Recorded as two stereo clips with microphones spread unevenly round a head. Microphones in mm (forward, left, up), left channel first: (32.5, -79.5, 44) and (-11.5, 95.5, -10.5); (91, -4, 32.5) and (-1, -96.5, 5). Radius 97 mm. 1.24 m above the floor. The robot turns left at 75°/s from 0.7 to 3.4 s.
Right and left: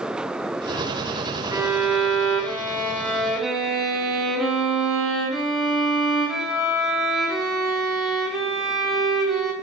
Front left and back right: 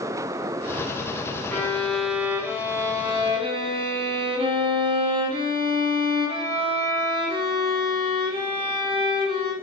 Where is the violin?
15° left, 0.8 m; by 9.5 s 125° right, 0.8 m.